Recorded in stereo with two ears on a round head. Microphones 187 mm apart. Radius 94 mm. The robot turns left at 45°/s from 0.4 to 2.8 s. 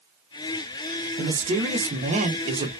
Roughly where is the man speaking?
Ahead right.